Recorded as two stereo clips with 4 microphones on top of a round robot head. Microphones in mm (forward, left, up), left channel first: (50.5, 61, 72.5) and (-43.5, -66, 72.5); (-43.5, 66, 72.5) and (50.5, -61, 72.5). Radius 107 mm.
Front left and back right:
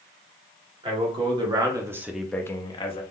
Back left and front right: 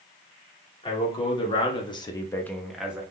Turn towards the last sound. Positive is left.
turn(degrees=25)